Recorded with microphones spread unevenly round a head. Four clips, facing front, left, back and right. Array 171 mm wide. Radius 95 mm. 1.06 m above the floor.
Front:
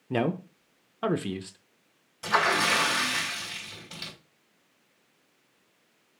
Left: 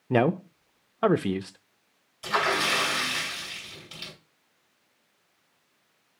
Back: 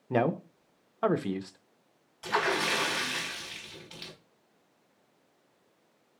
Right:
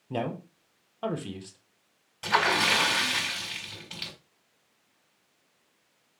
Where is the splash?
55° right, 4.5 m.